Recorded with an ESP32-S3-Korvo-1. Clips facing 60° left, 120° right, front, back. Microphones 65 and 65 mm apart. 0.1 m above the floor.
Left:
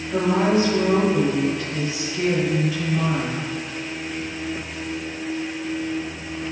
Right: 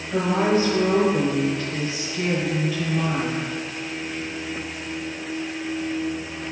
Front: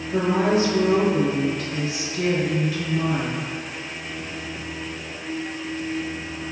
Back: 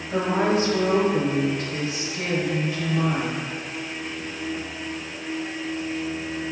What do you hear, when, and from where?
0.1 s a woman speaking: 145° left, 1.4 m